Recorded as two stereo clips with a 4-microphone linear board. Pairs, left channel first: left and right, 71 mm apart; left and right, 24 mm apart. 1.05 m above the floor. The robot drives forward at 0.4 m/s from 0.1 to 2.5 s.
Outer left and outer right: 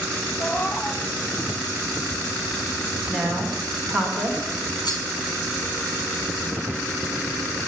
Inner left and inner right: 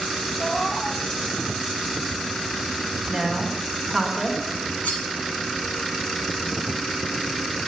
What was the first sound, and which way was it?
A cat meowing, 20° left (ahead or behind).